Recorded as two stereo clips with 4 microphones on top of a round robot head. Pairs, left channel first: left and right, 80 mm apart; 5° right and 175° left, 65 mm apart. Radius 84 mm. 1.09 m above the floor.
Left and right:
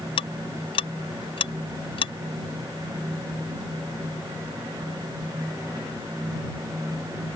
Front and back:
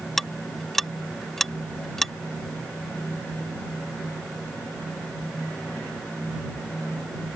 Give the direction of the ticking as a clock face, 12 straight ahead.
9 o'clock.